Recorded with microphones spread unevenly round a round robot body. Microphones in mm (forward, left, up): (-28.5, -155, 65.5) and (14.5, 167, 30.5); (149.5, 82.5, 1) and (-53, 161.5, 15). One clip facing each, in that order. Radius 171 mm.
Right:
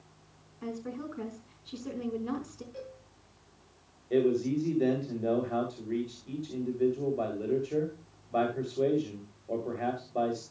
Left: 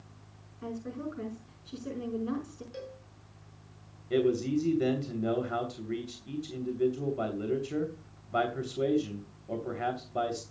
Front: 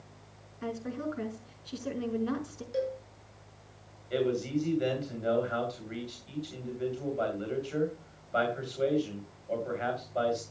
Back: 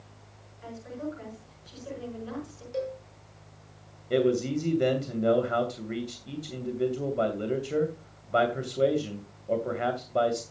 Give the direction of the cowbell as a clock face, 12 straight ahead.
10 o'clock.